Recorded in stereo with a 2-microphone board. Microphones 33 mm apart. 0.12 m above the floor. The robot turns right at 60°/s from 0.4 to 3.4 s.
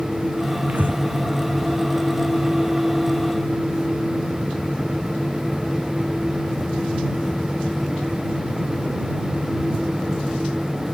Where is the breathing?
50° right (ahead or behind); by 1.0 s 70° right (ahead or behind).